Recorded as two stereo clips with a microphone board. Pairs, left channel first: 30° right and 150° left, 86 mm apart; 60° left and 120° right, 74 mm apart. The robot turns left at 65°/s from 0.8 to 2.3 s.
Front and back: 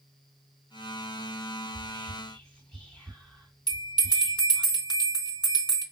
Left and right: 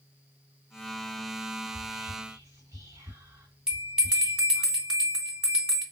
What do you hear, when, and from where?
1.7 s whispering: 70° right, 1.2 m; by 4.7 s 110° right, 1.2 m
3.7 s a bell: 45° right, 2 m